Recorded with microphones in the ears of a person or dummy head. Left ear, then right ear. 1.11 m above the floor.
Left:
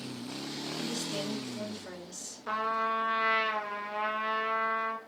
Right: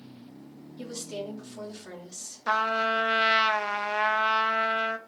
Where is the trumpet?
35° right (ahead or behind), 0.8 m.